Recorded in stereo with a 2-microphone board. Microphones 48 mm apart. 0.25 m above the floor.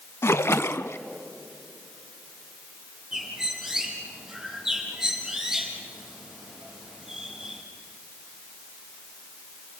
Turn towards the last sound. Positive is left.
turn(degrees=-10)  # may be behind; listen again after turning